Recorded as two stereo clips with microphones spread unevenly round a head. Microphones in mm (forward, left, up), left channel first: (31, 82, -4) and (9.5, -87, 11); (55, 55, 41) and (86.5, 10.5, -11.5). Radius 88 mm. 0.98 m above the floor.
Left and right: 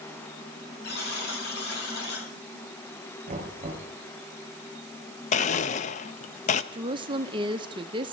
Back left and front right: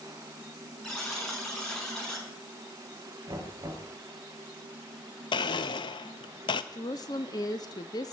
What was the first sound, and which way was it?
A buzzer, 50° left.